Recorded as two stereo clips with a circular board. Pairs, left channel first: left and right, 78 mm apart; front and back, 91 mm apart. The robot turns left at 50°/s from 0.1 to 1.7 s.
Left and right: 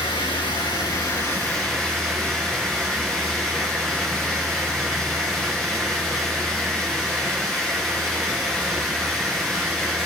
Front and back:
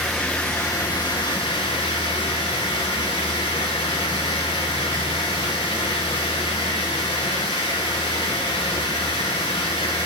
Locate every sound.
0.0 s running water: 90° left, 2.5 m; by 10.1 s 10° left, 2.5 m